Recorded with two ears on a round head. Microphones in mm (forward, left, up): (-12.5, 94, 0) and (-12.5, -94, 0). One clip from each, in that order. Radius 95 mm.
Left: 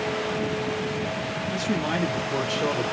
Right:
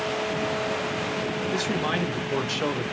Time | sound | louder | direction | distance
1.5 | a man speaking | even | 50° right (ahead or behind) | 2.5 m